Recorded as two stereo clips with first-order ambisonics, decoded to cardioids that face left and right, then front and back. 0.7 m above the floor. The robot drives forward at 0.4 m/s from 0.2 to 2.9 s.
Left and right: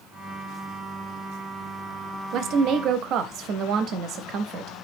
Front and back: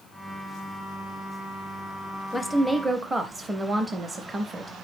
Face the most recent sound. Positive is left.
turn(degrees=-110)